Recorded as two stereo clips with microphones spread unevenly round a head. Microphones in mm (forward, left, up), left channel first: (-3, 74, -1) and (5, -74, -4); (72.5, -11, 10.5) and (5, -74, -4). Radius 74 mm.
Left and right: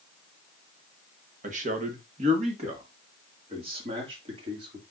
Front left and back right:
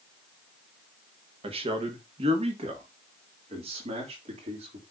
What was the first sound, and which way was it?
A man speaking, 125° right.